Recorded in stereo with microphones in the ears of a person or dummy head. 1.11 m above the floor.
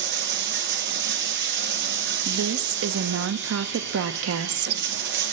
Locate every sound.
0.0 s running water: 50° right (ahead or behind), 0.8 m
2.2 s a woman speaking: 60° right (ahead or behind), 0.7 m